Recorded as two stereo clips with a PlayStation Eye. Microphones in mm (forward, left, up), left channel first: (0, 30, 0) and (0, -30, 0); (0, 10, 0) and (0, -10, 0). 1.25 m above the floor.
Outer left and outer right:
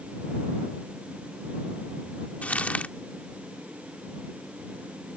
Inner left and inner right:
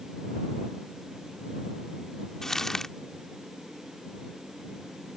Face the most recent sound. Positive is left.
turn(degrees=25)  # may be behind; listen again after turning